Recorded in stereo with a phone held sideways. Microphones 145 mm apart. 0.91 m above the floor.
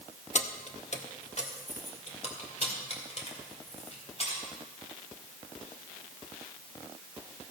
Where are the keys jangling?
50° left (ahead or behind), 0.7 m; by 4.4 s 45° left (ahead or behind), 4 m.